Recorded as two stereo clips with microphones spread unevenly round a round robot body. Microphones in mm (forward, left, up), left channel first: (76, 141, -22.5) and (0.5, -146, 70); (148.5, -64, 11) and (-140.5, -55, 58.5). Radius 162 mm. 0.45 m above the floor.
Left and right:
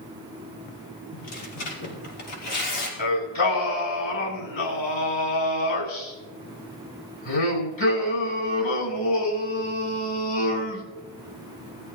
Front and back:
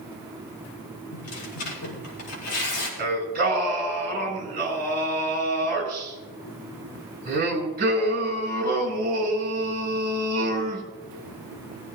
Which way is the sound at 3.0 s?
115° left.